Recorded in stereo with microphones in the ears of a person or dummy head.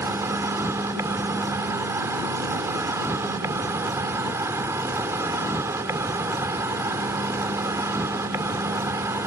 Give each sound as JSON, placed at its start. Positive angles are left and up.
{"t": 0.0, "sound": "an insect", "side_deg": -15}